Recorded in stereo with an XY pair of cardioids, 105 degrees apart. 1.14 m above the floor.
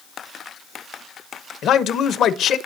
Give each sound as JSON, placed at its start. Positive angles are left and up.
{"t": 1.6, "sound": "a man speaking", "azimuth_deg": 65, "distance_m": 0.8}